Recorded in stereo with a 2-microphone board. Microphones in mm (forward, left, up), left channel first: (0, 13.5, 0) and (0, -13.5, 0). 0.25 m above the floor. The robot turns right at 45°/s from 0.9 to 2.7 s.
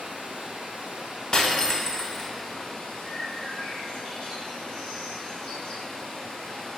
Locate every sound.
0.0 s running water: 50° right, 1.3 m; by 6.8 s 30° left, 1.3 m
1.3 s breaking glass: 135° left, 0.6 m; by 2.3 s 175° left, 0.6 m
3.0 s a bird: 45° left (ahead or behind), 1.6 m